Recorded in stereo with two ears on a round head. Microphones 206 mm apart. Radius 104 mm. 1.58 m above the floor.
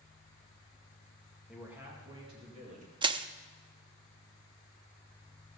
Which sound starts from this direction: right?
Crushing, at 3.0 s.